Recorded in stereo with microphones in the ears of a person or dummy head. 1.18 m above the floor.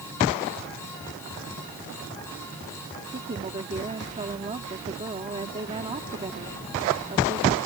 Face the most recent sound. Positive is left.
turn(degrees=-25)  # may be behind; listen again after turning